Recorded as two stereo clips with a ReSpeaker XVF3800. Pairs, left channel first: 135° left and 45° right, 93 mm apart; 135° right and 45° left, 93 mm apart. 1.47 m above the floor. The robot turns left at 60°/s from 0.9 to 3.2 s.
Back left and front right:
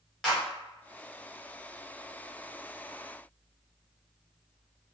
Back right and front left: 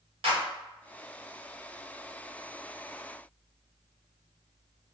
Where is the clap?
50° left, 1.3 m.